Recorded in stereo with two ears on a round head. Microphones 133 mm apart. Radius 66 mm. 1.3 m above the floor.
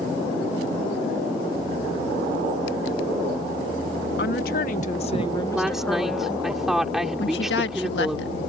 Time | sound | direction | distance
4.2 | a woman speaking | 70° left (ahead or behind) | ?
5.5 | a woman speaking | 5° right (ahead or behind) | ?
7.2 | a woman speaking | 80° left | ?